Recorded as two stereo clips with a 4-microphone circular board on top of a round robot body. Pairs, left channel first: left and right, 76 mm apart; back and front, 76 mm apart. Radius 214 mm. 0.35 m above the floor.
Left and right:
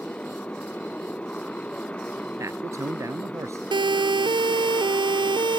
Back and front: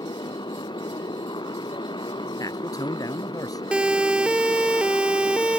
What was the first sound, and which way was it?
A motorcycle, 165° left.